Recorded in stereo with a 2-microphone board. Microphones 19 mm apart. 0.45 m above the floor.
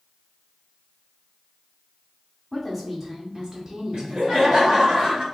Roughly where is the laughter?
Right.